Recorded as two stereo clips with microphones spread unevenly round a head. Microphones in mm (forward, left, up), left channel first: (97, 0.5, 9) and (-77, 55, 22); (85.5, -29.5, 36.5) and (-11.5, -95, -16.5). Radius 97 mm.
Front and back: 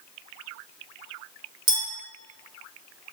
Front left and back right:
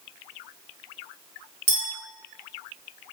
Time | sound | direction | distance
1.7 | a clink | 175° left | 1.0 m